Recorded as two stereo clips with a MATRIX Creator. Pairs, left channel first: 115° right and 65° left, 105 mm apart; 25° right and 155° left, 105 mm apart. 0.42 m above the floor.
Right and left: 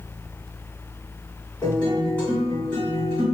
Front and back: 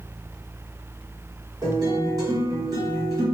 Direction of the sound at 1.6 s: 175° right.